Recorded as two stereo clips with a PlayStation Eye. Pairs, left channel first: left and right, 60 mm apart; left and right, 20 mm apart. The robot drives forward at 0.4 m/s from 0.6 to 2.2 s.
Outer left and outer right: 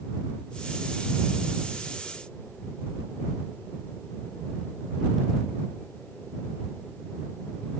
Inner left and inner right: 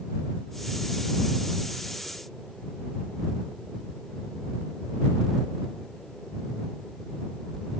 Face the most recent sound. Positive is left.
No sound to turn to.